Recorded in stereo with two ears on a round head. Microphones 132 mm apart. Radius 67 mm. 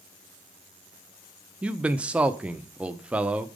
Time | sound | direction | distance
1.6 | a man speaking | 5° right (ahead or behind) | 0.6 m